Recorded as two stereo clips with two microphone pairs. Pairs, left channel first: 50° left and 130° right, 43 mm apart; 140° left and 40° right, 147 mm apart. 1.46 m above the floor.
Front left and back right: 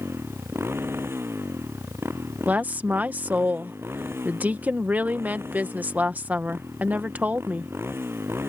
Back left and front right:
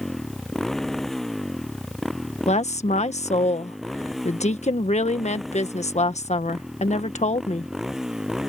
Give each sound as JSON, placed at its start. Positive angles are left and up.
{"t": 0.0, "sound": "a motorcycle", "azimuth_deg": -135}
{"t": 2.5, "sound": "a woman speaking", "azimuth_deg": 180}